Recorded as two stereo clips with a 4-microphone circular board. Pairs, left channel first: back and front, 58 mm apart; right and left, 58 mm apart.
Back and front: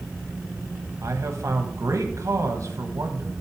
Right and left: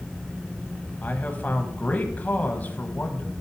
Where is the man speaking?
30° right, 1.2 m.